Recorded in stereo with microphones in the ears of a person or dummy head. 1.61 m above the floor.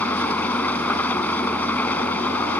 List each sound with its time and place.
0.0 s an engine running: 15° left (ahead or behind)